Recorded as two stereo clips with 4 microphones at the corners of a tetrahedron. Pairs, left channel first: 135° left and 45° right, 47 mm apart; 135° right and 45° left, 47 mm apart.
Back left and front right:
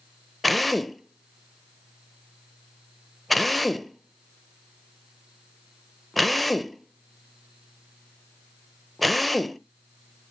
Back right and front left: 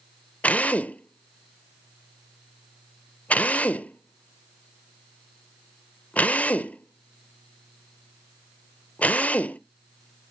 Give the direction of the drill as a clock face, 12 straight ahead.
5 o'clock.